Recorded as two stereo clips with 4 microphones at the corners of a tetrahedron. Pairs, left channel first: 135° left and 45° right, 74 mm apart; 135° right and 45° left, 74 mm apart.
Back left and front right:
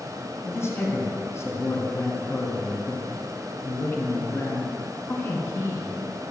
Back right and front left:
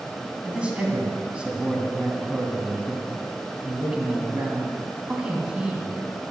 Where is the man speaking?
110° left, 2.0 m.